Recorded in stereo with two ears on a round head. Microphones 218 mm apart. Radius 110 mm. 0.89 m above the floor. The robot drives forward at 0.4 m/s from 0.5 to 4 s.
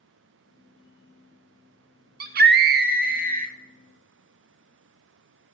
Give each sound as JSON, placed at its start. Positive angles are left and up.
{"t": 2.2, "sound": "a scream", "side_deg": -40, "distance_m": 0.9}